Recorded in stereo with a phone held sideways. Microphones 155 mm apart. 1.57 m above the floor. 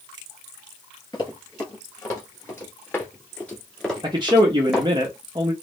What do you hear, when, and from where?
1.1 s running footsteps: 25° left (ahead or behind), 2.0 m; by 4.9 s 5° right (ahead or behind), 1.7 m
4.0 s a man speaking: 30° right (ahead or behind), 0.6 m